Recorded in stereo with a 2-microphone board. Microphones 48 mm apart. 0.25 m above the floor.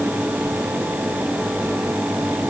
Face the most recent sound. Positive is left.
No sound to turn to.